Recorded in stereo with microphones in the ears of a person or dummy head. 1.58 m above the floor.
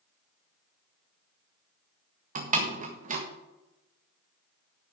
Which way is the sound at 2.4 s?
45° right (ahead or behind).